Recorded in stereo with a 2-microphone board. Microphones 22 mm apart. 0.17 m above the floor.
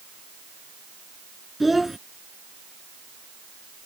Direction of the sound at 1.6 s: 5° right (ahead or behind).